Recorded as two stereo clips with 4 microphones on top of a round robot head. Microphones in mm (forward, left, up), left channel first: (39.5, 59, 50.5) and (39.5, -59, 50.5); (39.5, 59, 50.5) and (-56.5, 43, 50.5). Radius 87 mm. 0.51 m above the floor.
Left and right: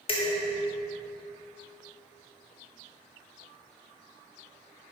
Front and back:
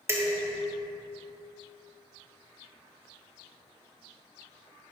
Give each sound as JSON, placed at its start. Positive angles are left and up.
{"t": 0.1, "sound": "dishes clattering", "azimuth_deg": 130, "distance_m": 1.3}